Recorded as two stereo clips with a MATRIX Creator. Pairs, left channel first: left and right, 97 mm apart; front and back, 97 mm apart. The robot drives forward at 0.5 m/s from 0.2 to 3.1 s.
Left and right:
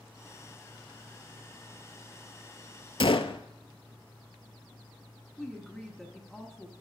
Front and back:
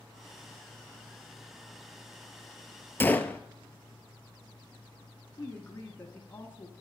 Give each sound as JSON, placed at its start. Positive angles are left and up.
{"t": 3.0, "sound": "a gunshot", "azimuth_deg": 65, "distance_m": 0.5}
{"t": 5.4, "sound": "a woman speaking", "azimuth_deg": 0, "distance_m": 1.1}